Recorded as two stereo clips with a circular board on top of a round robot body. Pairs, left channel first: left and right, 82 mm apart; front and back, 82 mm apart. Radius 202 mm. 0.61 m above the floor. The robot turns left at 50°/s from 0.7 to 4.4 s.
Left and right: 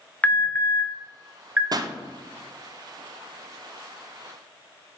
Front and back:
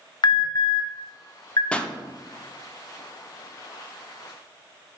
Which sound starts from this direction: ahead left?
An alarm, at 0.2 s.